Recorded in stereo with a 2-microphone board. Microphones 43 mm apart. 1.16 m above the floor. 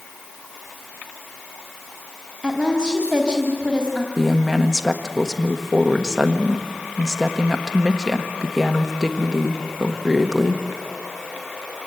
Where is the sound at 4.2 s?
Centre (ahead or behind), 1.3 m.